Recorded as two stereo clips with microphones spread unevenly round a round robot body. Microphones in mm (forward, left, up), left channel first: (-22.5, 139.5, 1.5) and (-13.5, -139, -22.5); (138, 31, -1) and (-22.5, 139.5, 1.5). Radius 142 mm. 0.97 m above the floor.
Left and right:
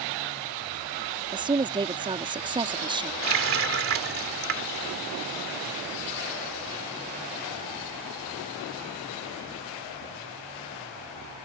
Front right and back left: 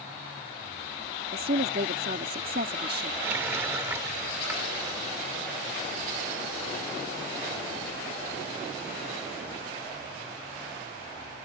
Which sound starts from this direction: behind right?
A running tap, at 3.2 s.